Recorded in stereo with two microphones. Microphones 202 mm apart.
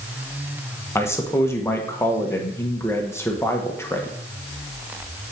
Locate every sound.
0.9 s a man speaking: 10° left (ahead or behind), 1.1 m